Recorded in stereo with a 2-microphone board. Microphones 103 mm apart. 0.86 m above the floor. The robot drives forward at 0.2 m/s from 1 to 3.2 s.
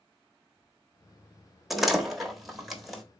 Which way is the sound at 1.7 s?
Centre (ahead or behind).